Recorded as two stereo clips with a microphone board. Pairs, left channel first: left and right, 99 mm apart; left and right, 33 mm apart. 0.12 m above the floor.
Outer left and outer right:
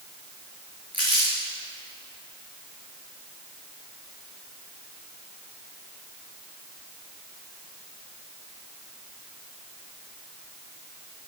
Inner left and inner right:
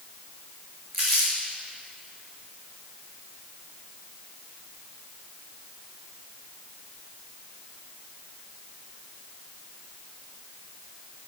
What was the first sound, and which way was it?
Crumpling, 15° left (ahead or behind).